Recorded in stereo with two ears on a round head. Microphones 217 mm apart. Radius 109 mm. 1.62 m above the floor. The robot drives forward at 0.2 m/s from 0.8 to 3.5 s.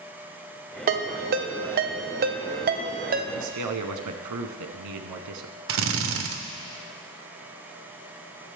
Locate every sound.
0.9 s a ringtone: 40° right (ahead or behind), 0.7 m; by 3.2 s 35° right (ahead or behind), 0.7 m
3.4 s a man speaking: 80° right, 1.0 m; by 5.6 s 85° right, 1.0 m
5.7 s a drill: 60° right (ahead or behind), 0.8 m